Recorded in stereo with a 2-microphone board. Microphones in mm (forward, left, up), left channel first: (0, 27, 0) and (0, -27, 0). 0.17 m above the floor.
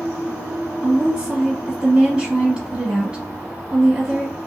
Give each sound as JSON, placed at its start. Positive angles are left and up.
{"t": 0.8, "sound": "a woman speaking", "side_deg": -15, "distance_m": 1.1}